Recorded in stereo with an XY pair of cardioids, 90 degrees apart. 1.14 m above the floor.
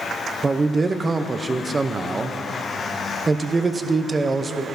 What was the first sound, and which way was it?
A man speaking, 30° right.